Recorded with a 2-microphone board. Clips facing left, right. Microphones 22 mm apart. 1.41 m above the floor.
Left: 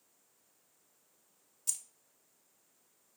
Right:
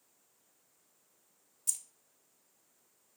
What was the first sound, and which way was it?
Keys jangling, 15° left (ahead or behind).